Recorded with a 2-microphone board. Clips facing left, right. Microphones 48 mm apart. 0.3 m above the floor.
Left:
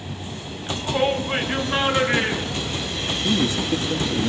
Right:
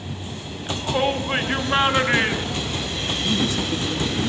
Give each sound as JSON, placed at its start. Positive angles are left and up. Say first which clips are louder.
{"t": 0.7, "sound": "a shout", "louder": "even", "side_deg": -5, "distance_m": 2.0}
{"t": 3.2, "sound": "a man speaking", "louder": "left 2 dB", "side_deg": 35, "distance_m": 7.5}